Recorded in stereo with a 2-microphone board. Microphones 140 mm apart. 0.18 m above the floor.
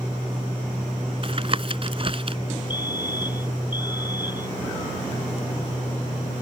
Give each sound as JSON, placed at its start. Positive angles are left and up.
{"t": 1.2, "sound": "tapping", "side_deg": -45}
{"t": 2.7, "sound": "a fire alarm", "side_deg": -15}